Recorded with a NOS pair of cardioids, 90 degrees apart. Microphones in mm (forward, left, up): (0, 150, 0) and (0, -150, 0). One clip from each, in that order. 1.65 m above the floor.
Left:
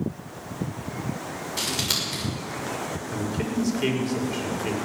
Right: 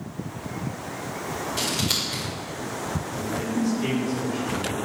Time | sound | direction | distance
1.6 | scissors | 10° left | 6.5 m
3.1 | a man speaking | 60° left | 5.5 m